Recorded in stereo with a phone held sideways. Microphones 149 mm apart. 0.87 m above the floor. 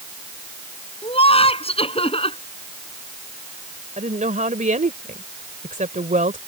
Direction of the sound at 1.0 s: 40° left (ahead or behind).